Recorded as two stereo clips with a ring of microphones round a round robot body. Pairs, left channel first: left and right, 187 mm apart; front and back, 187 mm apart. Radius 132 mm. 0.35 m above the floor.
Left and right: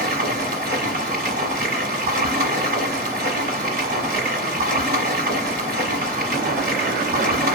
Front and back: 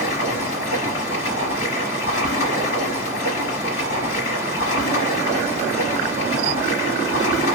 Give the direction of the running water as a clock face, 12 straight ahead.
2 o'clock.